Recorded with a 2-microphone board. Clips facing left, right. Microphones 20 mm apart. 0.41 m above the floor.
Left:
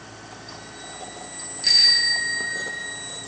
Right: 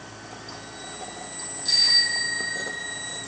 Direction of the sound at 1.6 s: 85° left.